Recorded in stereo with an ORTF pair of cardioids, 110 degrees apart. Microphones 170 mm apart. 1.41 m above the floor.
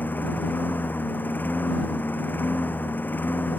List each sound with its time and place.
0.0 s a lawn mower: 10° left